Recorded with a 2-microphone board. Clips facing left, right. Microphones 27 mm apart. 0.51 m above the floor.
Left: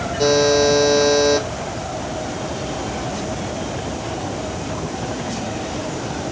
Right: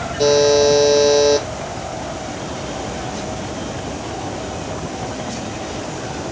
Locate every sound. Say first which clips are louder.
0.2 s a buzzer: right 2 dB; 10° right (ahead or behind), 5.5 m